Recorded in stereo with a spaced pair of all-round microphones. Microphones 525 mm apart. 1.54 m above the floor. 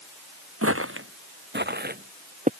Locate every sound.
0.6 s footsteps: 25° right (ahead or behind); by 2.5 s 15° right (ahead or behind)